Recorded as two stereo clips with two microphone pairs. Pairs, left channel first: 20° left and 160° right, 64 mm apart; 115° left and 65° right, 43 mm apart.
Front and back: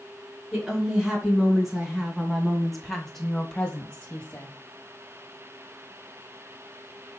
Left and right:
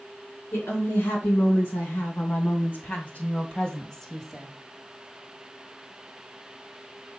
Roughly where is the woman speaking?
Behind left.